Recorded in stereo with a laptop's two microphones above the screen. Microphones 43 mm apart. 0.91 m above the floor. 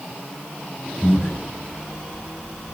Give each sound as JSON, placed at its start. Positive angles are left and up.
{"t": 1.0, "sound": "breathing", "side_deg": 45, "distance_m": 1.0}